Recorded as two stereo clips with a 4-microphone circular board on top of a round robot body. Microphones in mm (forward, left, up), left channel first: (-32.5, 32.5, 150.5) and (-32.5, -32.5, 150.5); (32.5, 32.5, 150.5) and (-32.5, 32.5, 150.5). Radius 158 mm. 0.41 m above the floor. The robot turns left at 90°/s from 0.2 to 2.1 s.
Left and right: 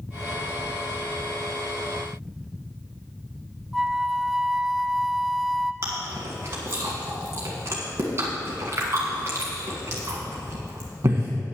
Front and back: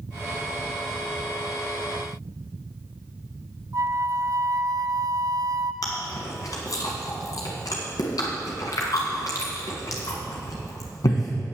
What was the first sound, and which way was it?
A flute, straight behind.